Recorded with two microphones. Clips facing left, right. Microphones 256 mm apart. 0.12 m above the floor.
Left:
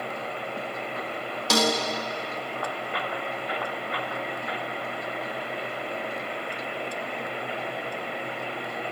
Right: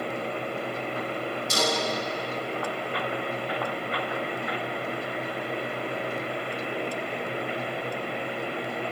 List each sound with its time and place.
1.5 s a snare drum: 80° left, 6.5 m